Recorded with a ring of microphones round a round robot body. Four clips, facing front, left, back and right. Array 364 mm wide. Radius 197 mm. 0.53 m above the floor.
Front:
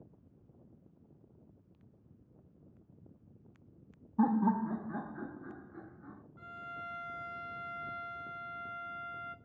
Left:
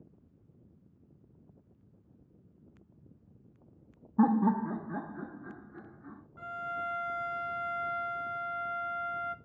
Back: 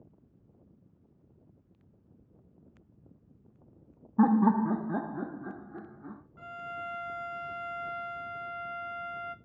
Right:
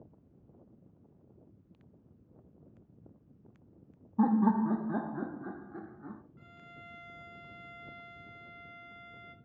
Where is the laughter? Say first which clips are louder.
Even, back 6 dB; 155° left, 0.7 m; by 6.2 s 140° right, 1.7 m.